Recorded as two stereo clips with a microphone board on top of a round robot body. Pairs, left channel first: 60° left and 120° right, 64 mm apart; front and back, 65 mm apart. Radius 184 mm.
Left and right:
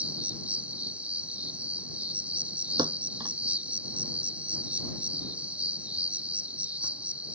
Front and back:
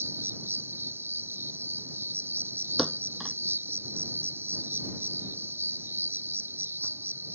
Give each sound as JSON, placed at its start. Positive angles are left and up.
{"t": 0.0, "sound": "an insect", "azimuth_deg": -175}
{"t": 2.8, "sound": "a thud", "azimuth_deg": -95}